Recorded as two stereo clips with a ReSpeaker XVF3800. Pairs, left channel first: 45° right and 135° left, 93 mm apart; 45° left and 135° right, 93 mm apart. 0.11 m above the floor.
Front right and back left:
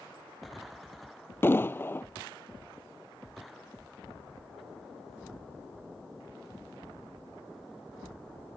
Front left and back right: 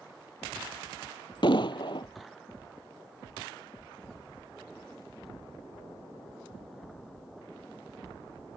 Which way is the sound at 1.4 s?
20° left.